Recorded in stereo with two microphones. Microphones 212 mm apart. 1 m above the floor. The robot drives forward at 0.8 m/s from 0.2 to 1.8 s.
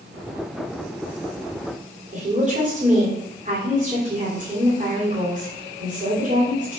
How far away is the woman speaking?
About 3 m.